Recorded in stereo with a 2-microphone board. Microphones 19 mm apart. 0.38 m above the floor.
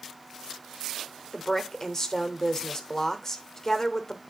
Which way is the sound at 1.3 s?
25° left (ahead or behind).